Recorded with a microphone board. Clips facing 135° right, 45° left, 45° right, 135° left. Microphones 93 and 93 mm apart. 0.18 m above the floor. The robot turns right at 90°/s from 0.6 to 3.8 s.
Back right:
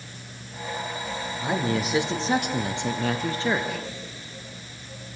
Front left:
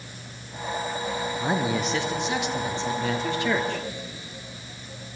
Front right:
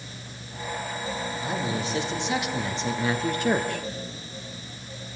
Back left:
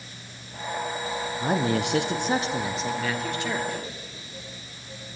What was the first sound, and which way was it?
A man speaking, 100° left.